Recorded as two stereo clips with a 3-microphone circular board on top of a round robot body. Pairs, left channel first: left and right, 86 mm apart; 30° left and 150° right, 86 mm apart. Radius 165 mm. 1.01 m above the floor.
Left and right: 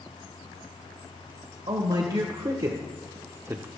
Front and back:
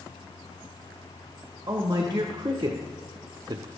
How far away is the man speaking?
About 1.7 m.